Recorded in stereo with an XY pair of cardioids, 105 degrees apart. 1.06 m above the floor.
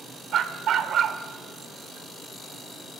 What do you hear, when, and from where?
0.3 s a dog barking: 65° right, 1.5 m